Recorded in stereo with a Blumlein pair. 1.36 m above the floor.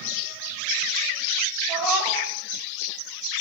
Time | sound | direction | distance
1.7 | a cat meowing | 25° right | 3.5 m